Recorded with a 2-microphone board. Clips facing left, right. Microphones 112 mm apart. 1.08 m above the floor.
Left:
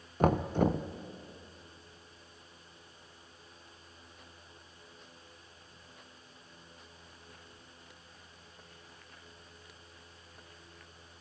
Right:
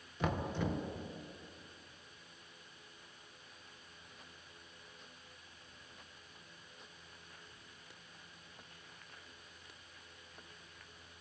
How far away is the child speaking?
I don't hear a child speaking.